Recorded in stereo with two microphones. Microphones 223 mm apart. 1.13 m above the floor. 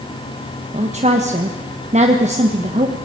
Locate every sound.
0.7 s a woman speaking: 30° right (ahead or behind), 1.4 m